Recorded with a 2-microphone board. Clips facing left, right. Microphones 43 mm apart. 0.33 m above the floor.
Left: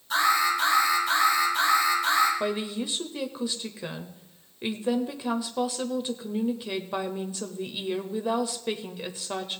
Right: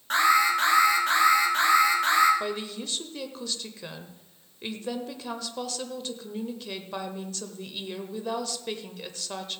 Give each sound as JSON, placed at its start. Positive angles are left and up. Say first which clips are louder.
{"t": 0.1, "sound": "an alarm", "louder": "right 2 dB", "side_deg": -50, "distance_m": 4.0}
{"t": 2.4, "sound": "a woman speaking", "louder": "left 3 dB", "side_deg": 15, "distance_m": 0.9}